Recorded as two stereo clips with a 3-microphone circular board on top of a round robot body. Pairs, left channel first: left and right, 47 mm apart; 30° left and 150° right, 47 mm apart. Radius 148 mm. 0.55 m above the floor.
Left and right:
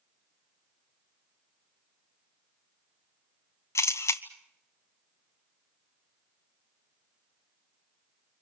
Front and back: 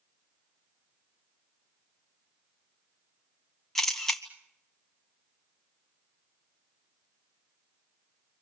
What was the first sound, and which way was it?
A camera shutter, 115° left.